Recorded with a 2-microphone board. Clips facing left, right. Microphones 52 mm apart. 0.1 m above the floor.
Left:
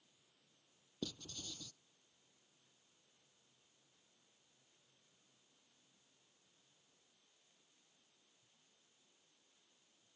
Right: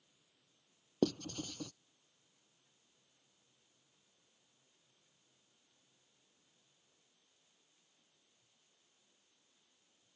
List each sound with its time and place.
1.0 s writing: 60° right (ahead or behind)